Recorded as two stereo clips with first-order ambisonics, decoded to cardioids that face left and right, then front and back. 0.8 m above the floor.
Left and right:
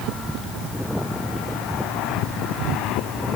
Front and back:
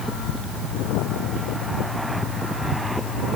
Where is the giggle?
I don't hear a giggle.